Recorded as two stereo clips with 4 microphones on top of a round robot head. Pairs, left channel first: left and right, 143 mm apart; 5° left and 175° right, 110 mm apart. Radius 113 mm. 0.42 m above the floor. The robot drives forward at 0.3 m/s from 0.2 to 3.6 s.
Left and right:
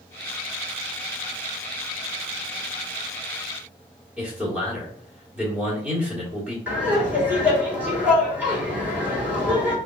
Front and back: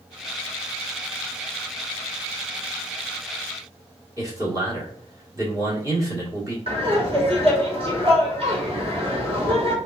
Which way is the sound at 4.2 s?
160° right.